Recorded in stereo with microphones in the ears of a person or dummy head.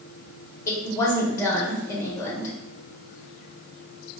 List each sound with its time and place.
0.7 s a woman speaking: 15° left (ahead or behind), 1.1 m